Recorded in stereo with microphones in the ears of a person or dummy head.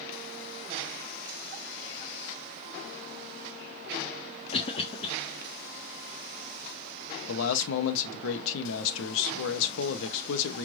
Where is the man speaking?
70° left (ahead or behind), 0.9 m.